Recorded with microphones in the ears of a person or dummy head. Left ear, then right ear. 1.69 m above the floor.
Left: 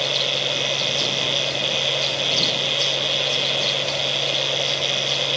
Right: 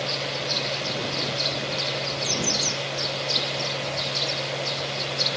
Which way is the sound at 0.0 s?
85° left.